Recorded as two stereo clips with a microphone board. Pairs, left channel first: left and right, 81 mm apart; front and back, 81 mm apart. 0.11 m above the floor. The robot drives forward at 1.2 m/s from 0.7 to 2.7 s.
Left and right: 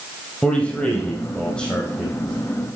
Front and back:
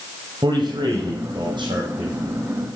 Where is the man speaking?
165° left, 3 m; by 2.1 s 170° left, 4.5 m.